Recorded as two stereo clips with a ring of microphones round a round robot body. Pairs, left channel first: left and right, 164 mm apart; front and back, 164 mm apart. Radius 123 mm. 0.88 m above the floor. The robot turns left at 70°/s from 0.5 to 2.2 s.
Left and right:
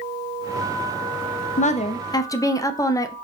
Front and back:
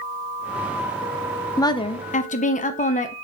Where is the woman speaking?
70° left, 0.6 m; by 3.1 s 25° left, 0.6 m.